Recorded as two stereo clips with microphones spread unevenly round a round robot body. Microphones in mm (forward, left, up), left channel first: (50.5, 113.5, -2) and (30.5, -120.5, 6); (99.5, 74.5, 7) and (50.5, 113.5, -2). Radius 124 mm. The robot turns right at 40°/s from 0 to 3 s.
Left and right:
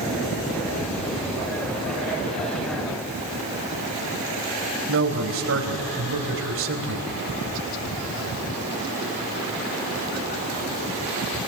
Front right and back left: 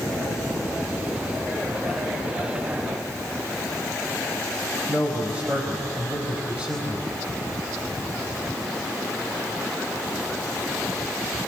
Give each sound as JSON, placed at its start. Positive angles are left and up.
{"t": 4.9, "sound": "a man speaking", "azimuth_deg": -135, "distance_m": 3.5}